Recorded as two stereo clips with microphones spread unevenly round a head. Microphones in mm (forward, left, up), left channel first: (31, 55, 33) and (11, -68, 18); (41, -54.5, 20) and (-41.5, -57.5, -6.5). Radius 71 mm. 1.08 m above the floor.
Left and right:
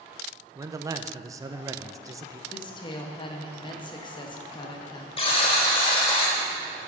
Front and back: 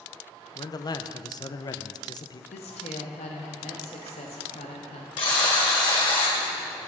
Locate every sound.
0.6 s a man speaking: 45° right, 0.7 m
2.5 s a woman speaking: 25° left, 1.3 m
5.2 s a buzzer: 40° left, 1.9 m